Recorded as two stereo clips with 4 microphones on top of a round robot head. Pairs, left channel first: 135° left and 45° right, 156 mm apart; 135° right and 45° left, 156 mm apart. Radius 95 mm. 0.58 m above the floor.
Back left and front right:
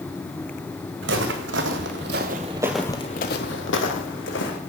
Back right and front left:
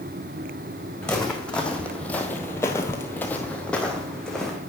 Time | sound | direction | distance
1.0 | footsteps | 50° right | 1.8 m